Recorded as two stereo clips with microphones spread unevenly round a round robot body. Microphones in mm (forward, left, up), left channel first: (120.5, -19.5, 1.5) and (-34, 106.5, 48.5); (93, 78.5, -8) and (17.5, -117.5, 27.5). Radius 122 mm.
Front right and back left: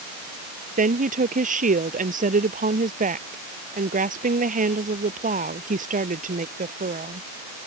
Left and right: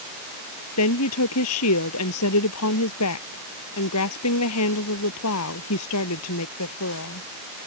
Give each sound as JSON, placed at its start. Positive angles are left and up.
{"t": 0.8, "sound": "a woman speaking", "azimuth_deg": 95}